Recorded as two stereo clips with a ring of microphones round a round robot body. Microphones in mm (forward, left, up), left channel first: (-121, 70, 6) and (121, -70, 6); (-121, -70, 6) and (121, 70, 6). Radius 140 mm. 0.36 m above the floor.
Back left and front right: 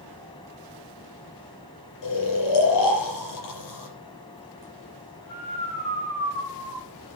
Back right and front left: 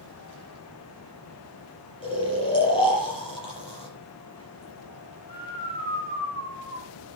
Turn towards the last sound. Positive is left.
turn(degrees=140)